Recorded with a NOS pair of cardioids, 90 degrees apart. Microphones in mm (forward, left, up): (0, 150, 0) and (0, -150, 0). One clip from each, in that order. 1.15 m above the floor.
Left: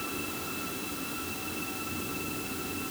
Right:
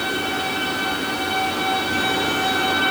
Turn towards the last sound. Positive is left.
No sound to turn to.